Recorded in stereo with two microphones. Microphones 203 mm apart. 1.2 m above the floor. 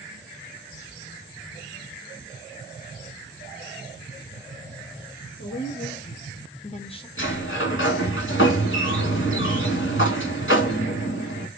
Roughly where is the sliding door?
Left.